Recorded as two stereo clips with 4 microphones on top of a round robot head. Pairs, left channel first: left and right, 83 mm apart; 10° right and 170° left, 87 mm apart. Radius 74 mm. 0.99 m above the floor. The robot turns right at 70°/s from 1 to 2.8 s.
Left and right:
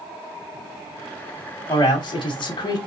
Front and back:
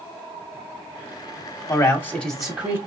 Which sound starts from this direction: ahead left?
A man speaking, at 1.7 s.